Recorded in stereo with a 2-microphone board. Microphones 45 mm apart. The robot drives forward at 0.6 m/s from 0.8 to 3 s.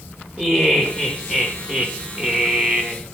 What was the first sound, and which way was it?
Laughter, 10° right (ahead or behind).